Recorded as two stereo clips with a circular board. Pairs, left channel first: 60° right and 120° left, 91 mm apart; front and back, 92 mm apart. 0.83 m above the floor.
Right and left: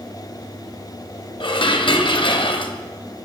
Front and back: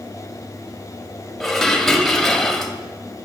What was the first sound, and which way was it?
Dishes clattering, 90° right.